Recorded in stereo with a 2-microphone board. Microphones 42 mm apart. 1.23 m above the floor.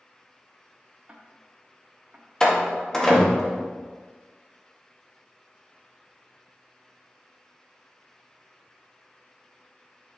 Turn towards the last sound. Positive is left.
turn(degrees=15)  # may be behind; listen again after turning